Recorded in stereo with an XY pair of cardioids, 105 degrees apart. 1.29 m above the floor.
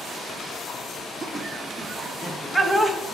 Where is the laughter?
10° right, 3 m; by 3.0 s straight ahead, 1.9 m.